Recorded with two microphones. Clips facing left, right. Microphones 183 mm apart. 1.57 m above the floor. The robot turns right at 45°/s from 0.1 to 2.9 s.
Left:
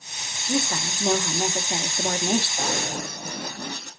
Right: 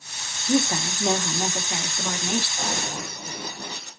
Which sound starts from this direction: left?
Running footsteps, at 2.6 s.